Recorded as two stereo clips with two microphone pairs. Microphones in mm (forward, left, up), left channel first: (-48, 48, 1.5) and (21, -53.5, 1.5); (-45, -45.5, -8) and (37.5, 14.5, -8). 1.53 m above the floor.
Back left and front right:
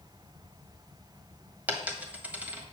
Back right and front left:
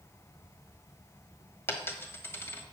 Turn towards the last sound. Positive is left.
turn(degrees=-115)